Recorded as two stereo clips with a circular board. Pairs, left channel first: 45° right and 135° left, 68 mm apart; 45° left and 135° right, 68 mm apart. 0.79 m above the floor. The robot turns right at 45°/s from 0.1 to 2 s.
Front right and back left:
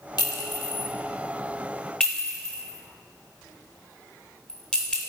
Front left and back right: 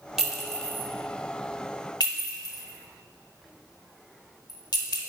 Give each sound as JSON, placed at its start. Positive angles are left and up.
{"t": 0.2, "sound": "a clink", "azimuth_deg": -50, "distance_m": 0.9}